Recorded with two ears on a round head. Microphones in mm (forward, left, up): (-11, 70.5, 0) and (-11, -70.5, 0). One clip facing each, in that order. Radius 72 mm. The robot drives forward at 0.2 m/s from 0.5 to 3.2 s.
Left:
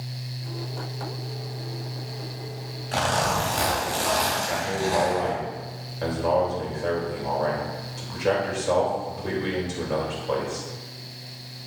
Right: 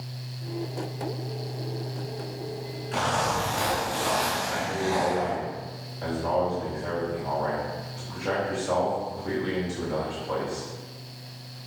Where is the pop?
No pop in this recording.